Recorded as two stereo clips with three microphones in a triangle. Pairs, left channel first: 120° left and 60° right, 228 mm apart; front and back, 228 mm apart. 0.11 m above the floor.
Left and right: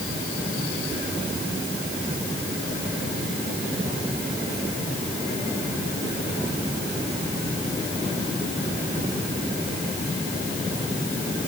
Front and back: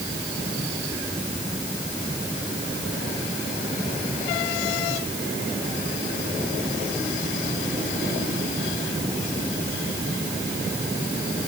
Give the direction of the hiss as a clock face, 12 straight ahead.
No hiss in this recording.